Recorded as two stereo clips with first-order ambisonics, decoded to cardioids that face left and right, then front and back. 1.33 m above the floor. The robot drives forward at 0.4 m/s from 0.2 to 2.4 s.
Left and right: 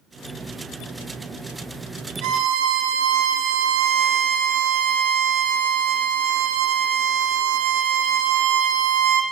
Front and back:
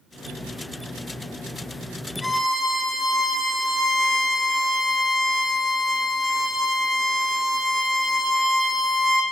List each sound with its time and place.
2.2 s a violin: 85° right, 0.7 m; by 9.2 s 90° right, 0.7 m